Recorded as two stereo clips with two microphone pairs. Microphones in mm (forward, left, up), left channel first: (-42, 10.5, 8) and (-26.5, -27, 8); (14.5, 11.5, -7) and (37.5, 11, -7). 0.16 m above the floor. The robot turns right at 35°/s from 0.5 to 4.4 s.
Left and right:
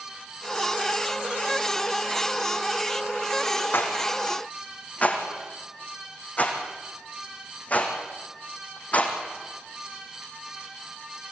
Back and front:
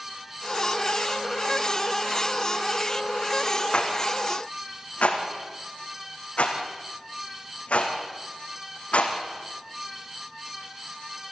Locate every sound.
3.7 s a rattle: 140° left, 3.5 m; by 9.2 s 165° left, 3.5 m